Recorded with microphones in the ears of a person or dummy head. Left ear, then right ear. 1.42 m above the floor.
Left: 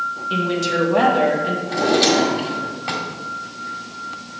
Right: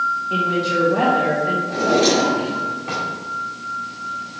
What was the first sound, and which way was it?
A woman speaking, 75° left (ahead or behind).